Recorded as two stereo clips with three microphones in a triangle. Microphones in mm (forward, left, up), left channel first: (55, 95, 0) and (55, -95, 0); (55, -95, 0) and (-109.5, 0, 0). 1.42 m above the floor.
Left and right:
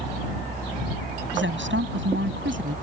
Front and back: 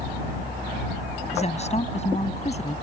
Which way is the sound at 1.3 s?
85° right.